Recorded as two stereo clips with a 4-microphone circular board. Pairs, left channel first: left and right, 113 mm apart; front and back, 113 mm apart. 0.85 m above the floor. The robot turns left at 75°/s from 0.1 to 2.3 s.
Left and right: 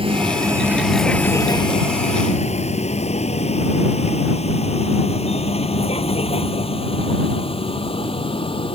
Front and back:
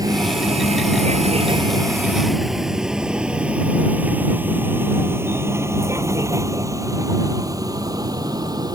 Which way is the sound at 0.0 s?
125° right.